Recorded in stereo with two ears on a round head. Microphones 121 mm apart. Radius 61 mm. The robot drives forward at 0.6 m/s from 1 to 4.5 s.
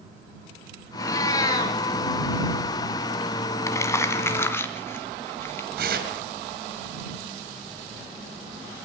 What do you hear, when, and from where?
1.0 s a cat meowing: 25° left (ahead or behind), 3.5 m
3.7 s crumpling: 25° left (ahead or behind), 2 m; by 5.7 s 20° left (ahead or behind), 2.5 m
5.8 s tearing paper: 80° right, 5.5 m